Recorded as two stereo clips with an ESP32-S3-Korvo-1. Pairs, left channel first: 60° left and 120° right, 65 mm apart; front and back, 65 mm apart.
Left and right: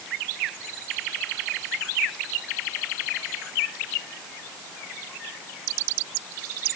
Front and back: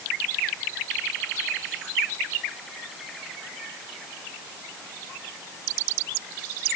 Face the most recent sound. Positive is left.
No sound to turn to.